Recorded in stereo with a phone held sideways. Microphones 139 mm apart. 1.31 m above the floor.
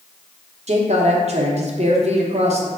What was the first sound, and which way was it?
A woman speaking, 50° right (ahead or behind).